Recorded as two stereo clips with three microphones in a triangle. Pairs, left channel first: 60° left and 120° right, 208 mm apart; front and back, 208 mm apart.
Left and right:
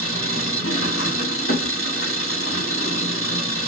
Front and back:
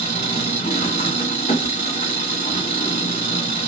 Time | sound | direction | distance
0.0 | an engine running | 55° left | 1.8 m